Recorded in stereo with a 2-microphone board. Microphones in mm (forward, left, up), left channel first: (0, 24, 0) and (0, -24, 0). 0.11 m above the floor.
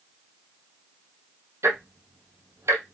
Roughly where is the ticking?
Right.